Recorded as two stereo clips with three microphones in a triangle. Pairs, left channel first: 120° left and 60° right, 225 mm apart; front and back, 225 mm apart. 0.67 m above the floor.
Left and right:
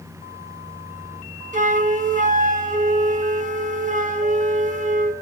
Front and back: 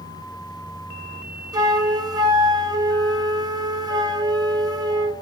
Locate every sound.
1.5 s a flute: 110° right, 0.6 m